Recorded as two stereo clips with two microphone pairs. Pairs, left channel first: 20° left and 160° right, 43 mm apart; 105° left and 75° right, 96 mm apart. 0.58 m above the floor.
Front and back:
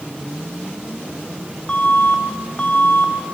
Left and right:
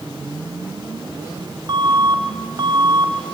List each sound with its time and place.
1.7 s an alarm: 40° right, 3 m